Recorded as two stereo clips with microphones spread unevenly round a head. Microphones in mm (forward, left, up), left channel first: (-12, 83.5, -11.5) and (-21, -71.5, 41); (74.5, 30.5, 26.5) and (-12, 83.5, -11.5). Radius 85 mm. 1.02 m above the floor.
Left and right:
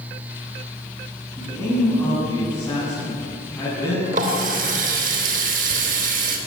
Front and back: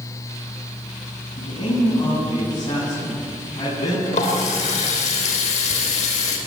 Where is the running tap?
55° right, 3 m.